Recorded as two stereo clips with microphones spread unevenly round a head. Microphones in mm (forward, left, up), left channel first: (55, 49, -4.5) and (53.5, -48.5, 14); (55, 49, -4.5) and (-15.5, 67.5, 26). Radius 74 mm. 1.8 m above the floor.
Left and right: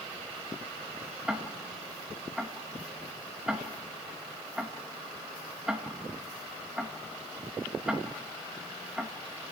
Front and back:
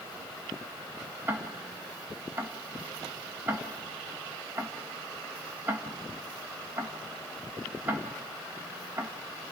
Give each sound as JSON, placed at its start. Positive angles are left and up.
{"t": 1.3, "sound": "ticking", "azimuth_deg": -165, "distance_m": 1.4}